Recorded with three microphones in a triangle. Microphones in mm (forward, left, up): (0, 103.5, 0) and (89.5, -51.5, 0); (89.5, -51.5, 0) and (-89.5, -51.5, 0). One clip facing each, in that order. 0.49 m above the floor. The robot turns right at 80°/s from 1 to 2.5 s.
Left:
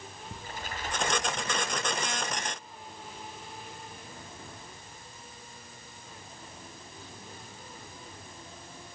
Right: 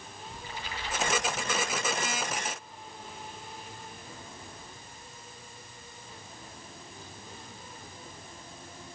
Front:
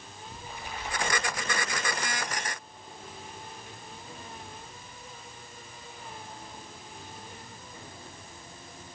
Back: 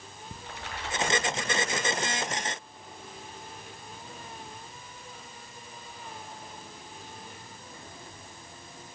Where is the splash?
165° left, 7.5 m; by 1.8 s 135° right, 7.5 m.